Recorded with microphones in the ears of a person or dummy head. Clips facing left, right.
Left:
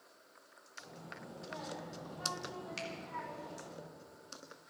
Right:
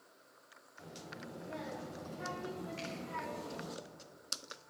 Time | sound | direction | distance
0.8 | a child speaking | 25° right (ahead or behind) | 2.5 m
2.8 | a finger snap | 85° left | 3.5 m